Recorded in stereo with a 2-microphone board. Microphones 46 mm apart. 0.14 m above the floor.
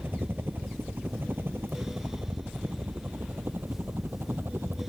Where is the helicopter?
50° right (ahead or behind).